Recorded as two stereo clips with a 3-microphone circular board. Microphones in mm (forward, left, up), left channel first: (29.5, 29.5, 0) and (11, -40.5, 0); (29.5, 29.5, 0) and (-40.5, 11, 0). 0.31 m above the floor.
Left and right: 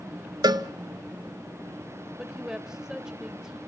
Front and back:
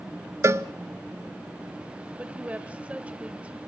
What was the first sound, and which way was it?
A cowbell, 120° right.